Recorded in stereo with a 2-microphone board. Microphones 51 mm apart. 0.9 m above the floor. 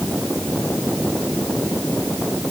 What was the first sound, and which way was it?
Only background noise.